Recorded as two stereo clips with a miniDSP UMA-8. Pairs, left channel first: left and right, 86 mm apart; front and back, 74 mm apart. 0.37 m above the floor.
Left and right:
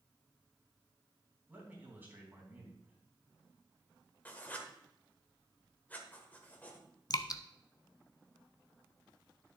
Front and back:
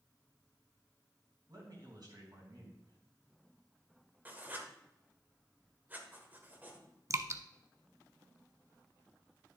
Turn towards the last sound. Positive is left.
turn(degrees=130)